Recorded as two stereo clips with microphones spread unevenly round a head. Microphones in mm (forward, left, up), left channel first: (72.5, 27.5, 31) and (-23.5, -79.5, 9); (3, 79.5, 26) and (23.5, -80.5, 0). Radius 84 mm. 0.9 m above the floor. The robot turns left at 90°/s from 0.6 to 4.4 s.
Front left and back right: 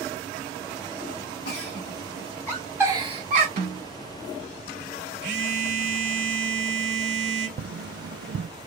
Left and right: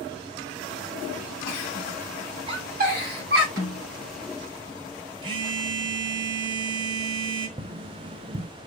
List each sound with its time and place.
1.4 s a giggle: 65° left, 3 m; by 3.5 s 115° right, 3 m
3.6 s a snare drum: 120° right, 4.5 m; by 3.8 s 145° right, 4.5 m
5.2 s a phone buzzing: 150° right, 1.3 m
7.6 s tapping: 140° right, 0.6 m